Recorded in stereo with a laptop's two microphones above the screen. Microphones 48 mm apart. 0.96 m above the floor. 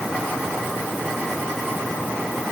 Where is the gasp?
No gasp in this recording.